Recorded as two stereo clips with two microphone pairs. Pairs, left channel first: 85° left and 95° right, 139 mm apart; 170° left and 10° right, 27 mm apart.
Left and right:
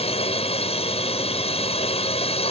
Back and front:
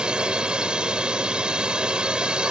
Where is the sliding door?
I don't hear a sliding door.